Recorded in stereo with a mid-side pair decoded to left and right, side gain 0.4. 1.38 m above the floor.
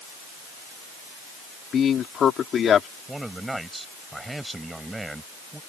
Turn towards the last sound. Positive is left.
turn(degrees=-15)